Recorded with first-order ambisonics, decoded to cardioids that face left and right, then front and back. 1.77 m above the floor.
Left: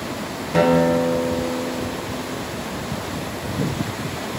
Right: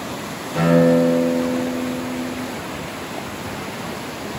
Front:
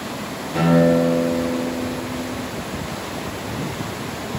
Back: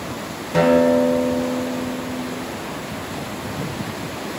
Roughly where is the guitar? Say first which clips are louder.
Right 1 dB, back 2 dB; behind left.